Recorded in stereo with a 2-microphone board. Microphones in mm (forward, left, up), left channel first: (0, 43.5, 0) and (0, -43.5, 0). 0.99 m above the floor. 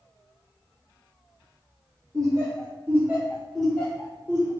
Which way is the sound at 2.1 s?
45° right (ahead or behind).